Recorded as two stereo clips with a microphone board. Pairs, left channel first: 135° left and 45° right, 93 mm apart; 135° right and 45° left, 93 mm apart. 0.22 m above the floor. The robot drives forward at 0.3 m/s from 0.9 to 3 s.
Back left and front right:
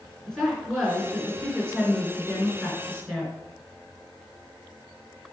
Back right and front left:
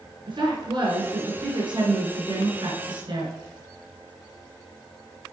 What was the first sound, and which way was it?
A woman speaking, 50° left.